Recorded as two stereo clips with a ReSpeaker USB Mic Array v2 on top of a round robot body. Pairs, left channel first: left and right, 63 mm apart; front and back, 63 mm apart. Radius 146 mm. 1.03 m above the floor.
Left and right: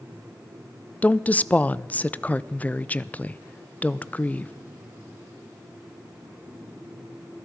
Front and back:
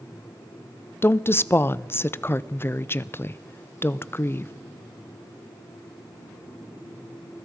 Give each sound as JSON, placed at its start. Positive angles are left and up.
{"t": 1.0, "sound": "a woman speaking", "azimuth_deg": 35, "distance_m": 0.6}